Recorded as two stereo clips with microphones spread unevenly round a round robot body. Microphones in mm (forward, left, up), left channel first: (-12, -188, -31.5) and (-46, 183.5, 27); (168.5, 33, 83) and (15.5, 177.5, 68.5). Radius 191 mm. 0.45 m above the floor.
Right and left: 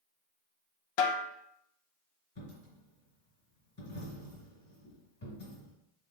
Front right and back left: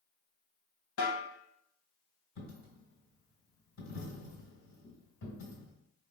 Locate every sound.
1.0 s a snare drum: 75° right, 0.6 m
2.4 s a dropped coin: 20° right, 2.5 m